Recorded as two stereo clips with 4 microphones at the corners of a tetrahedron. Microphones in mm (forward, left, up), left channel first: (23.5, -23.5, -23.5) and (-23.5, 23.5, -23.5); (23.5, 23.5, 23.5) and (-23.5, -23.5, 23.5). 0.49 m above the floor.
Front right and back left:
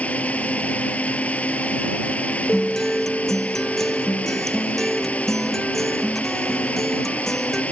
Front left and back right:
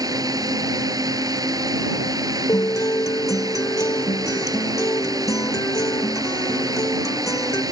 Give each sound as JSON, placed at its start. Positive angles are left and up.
{"t": 0.0, "sound": "a drone", "azimuth_deg": -115}
{"t": 2.5, "sound": "a guitar", "azimuth_deg": 40}